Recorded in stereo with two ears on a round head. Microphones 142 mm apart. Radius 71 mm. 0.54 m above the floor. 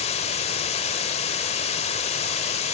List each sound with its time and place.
0.0 s running water: 40° left (ahead or behind), 1.4 m